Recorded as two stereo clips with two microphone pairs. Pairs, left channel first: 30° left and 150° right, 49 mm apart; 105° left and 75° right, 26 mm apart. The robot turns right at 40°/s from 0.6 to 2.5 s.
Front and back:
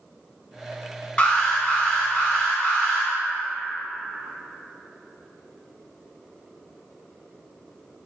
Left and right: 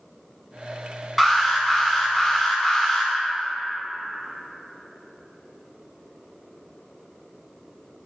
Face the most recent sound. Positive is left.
turn(degrees=70)